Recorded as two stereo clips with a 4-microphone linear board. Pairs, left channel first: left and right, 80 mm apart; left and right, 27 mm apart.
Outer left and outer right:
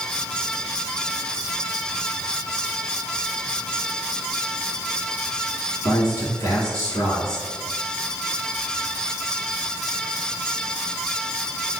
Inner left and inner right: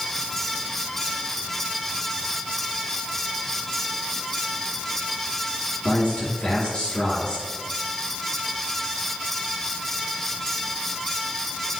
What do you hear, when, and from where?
5.8 s a man speaking: 45° left (ahead or behind), 1.6 m